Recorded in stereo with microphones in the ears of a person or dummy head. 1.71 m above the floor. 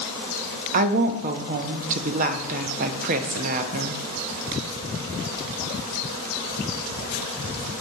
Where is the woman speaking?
40° right (ahead or behind), 0.6 m.